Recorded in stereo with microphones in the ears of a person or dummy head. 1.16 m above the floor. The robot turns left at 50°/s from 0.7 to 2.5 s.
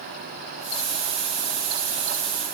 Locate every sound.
Only background noise.